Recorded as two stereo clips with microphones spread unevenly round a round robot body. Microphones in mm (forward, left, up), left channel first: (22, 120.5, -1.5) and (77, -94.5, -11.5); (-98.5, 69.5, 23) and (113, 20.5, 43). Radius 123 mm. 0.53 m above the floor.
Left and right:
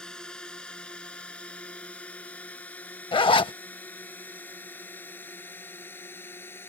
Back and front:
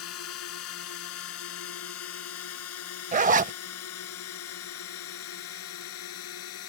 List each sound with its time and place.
0.0 s a drone: 170° right; by 6.7 s 175° right
3.1 s a zipper: 40° left